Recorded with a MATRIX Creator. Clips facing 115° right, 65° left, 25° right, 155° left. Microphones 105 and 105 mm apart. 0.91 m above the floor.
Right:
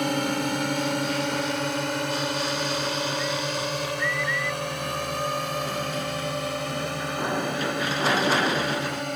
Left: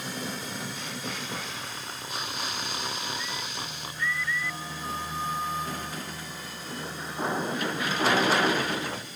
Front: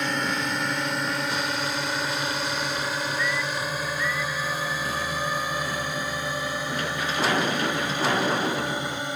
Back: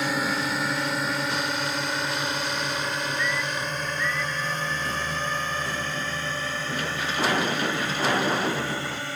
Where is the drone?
120° right; by 9.2 s 95° right.